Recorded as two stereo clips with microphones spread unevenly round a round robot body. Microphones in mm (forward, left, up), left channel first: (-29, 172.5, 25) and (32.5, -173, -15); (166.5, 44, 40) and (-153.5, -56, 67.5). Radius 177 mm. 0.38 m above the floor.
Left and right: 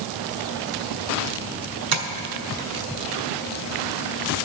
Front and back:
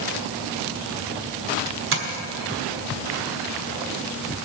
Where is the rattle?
No rattle in this recording.